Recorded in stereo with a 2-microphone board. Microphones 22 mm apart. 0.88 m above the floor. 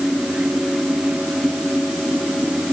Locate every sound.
Only background noise.